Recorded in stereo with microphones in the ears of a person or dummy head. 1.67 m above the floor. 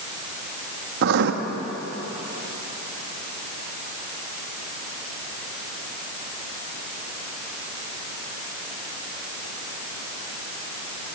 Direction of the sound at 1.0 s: 65° right (ahead or behind).